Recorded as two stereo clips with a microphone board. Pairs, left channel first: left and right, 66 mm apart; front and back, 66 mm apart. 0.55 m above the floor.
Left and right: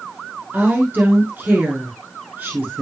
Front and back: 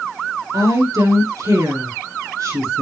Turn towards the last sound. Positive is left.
turn(degrees=-150)